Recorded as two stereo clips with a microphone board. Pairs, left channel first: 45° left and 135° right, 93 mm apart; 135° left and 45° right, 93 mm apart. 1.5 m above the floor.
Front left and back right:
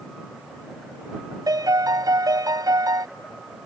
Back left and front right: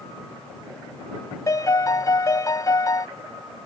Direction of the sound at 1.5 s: 175° right.